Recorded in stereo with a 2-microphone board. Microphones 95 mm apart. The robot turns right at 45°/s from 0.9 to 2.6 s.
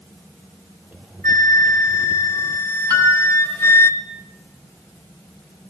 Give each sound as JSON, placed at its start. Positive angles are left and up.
{"t": 1.2, "sound": "a flute", "azimuth_deg": 70, "distance_m": 1.4}
{"t": 2.9, "sound": "a piano", "side_deg": -45, "distance_m": 7.0}